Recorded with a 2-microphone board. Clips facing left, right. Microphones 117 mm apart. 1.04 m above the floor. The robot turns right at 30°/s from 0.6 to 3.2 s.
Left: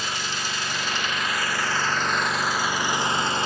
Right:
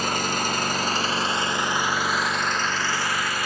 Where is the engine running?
50° right, 0.9 m; by 3.5 s 25° left, 0.9 m.